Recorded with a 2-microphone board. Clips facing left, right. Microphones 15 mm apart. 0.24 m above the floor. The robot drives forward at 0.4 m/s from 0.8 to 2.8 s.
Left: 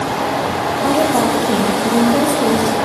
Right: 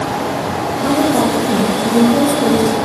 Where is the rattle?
I don't hear a rattle.